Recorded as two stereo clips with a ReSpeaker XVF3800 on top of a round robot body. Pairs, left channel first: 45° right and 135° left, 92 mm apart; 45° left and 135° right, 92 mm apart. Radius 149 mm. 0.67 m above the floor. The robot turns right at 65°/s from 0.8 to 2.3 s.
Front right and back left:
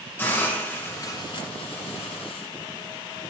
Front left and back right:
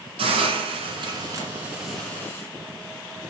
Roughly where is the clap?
I don't hear a clap.